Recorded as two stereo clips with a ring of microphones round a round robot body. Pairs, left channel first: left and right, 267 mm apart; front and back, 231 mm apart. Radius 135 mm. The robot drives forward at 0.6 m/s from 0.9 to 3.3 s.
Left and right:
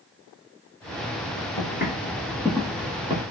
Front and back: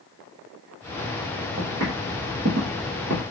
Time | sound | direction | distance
1.6 | footsteps | 145° left | 1.8 m